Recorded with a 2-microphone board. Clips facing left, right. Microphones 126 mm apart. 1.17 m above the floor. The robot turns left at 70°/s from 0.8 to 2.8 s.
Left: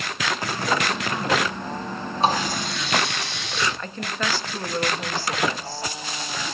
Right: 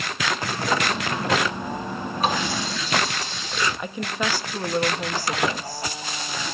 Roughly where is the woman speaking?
Centre.